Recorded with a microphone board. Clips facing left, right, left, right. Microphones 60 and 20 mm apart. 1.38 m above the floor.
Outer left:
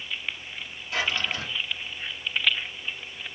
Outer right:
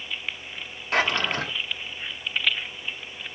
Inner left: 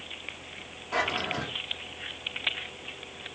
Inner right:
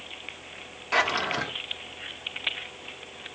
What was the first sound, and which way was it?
A drawer, 55° right (ahead or behind).